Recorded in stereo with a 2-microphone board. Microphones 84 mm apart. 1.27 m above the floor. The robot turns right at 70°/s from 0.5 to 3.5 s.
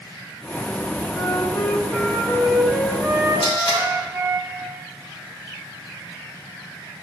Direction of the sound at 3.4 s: 65° left (ahead or behind).